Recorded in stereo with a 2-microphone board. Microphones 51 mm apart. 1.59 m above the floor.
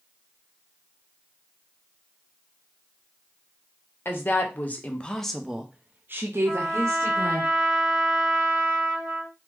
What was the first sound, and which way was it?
A woman speaking, 40° left (ahead or behind).